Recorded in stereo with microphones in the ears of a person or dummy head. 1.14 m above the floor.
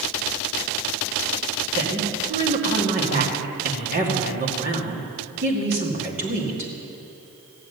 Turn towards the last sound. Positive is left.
turn(degrees=-35)  # may be behind; listen again after turning